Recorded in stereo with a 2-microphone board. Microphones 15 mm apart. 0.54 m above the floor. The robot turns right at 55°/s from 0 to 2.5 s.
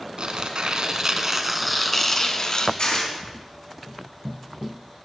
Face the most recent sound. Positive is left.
turn(degrees=65)  # may be behind; listen again after turning